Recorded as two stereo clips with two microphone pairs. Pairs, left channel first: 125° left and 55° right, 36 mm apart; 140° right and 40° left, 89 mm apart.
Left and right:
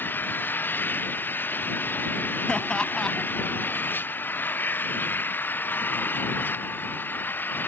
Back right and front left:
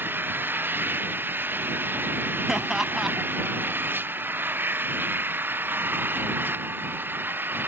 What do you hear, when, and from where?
0.0 s an engine running: 110° left
2.5 s laughter: 120° left